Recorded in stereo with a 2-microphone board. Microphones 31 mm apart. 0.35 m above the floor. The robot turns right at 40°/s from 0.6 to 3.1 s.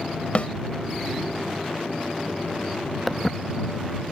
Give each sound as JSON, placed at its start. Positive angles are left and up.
{"t": 0.3, "sound": "a snare drum", "side_deg": 45}
{"t": 3.1, "sound": "footsteps", "side_deg": 10}